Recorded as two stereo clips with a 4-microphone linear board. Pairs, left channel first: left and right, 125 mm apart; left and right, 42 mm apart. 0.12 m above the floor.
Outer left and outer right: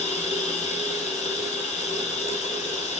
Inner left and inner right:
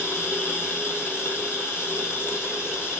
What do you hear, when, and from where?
0.0 s running water: 65° left (ahead or behind), 1.4 m